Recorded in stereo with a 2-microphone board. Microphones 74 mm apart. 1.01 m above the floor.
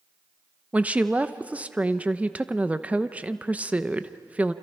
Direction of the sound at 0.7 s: 15° right (ahead or behind).